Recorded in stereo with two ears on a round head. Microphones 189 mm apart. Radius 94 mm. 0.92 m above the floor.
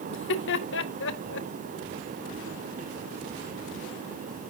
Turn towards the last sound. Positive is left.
turn(degrees=60)  # may be behind; listen again after turning